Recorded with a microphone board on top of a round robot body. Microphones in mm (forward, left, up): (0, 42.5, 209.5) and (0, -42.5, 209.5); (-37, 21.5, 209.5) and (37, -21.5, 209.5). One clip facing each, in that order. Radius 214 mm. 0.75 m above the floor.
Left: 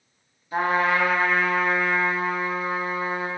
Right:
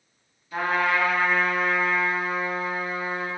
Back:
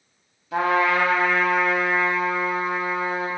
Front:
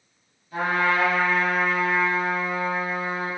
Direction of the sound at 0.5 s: 160° left.